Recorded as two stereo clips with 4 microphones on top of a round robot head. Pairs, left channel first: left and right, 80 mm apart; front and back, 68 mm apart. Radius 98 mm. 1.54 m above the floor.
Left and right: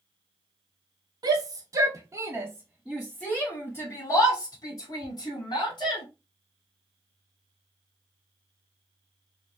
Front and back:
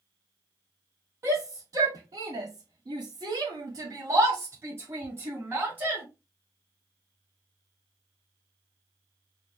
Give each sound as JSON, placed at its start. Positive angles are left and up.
{"t": 1.2, "sound": "a shout", "azimuth_deg": -120, "distance_m": 1.1}